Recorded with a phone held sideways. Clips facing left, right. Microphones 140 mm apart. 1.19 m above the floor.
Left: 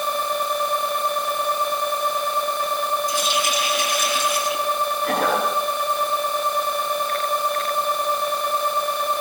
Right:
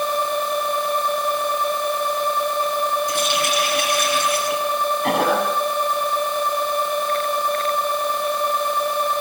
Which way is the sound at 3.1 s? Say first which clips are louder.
Right 2 dB; 70° right (ahead or behind).